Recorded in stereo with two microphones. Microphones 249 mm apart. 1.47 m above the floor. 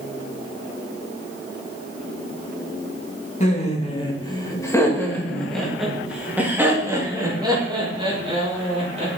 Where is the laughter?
30° left (ahead or behind), 2.5 m; by 9.1 s 25° right (ahead or behind), 4 m.